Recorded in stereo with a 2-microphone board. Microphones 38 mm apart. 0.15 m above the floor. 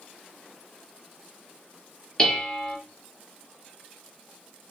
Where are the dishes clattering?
15° left (ahead or behind), 2 m.